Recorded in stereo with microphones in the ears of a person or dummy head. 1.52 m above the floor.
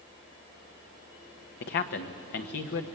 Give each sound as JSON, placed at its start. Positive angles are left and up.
{"t": 1.6, "sound": "a man speaking", "side_deg": 50, "distance_m": 1.4}